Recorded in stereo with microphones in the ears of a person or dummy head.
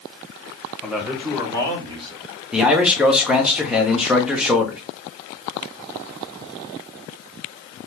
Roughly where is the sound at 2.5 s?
Centre.